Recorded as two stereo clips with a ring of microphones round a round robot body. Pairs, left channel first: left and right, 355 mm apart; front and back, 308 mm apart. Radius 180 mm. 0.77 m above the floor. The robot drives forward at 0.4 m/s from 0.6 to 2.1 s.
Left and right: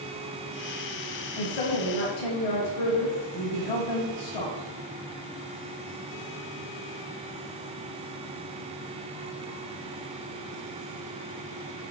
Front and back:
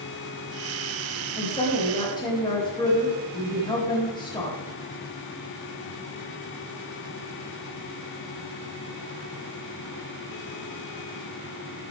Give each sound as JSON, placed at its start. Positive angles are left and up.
{"t": 1.4, "sound": "a woman speaking", "azimuth_deg": 75, "distance_m": 4.5}